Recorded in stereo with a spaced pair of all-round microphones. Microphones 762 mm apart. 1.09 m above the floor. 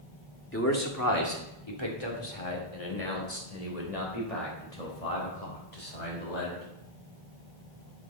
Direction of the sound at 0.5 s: 15° left (ahead or behind).